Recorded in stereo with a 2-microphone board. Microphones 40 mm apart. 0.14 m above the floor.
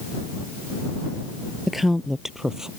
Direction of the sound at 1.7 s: 5° right (ahead or behind).